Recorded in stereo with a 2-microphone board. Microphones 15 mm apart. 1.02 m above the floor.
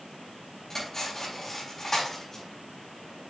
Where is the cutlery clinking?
35° left (ahead or behind), 4 m.